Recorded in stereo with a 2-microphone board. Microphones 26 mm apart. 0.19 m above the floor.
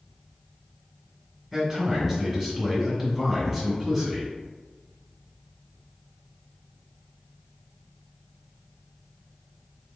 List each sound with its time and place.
1.5 s a man speaking: 5° right (ahead or behind), 1.7 m